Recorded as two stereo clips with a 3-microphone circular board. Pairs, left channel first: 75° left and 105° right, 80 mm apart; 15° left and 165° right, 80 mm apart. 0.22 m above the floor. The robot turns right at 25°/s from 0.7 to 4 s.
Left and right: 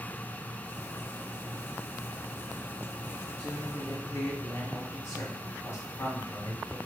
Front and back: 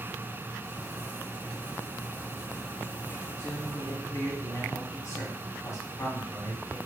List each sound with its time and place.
3.4 s a man speaking: 30° left, 1.8 m; by 6.8 s 45° left, 1.8 m